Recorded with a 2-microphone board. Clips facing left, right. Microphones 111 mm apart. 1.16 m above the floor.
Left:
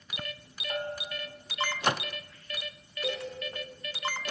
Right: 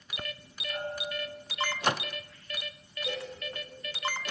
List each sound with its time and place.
0.7 s a bell: 65° left (ahead or behind), 4.5 m
3.0 s a cowbell: 85° left, 10 m